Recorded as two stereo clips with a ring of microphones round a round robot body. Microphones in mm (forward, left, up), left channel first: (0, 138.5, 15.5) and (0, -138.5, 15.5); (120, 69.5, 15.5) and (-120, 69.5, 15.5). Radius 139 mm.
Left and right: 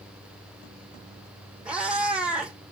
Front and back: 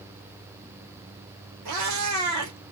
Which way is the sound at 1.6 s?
175° right.